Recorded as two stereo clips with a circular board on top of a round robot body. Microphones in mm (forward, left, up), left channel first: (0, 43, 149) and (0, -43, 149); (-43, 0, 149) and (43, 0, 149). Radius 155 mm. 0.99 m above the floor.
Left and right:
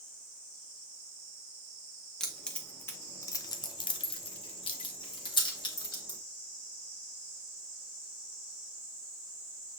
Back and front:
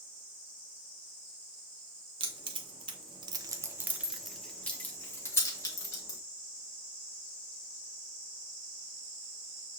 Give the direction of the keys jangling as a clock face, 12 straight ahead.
12 o'clock.